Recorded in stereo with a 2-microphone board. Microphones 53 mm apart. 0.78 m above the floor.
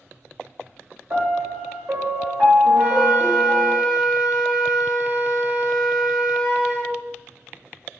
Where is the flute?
30° right (ahead or behind), 1.1 m.